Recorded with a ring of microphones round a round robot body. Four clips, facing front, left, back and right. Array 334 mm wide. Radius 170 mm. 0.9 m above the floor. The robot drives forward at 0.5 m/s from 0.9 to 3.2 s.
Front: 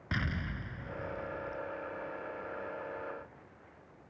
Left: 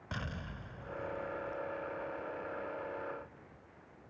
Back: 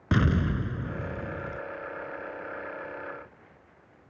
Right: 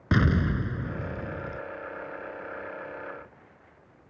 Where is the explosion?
125° right; by 1.6 s 130° right.